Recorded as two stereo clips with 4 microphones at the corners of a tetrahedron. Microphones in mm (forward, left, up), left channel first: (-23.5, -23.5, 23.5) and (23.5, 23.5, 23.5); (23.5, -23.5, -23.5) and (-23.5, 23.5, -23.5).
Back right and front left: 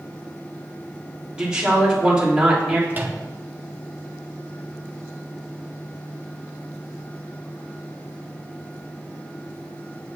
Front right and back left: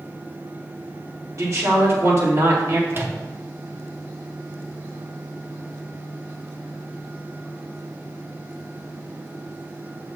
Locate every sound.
1.4 s a woman speaking: 120° left, 1.9 m
2.9 s a microwave: 100° left, 0.7 m